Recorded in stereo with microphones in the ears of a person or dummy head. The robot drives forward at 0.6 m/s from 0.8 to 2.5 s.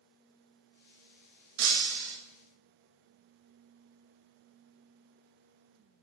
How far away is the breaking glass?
About 2 m.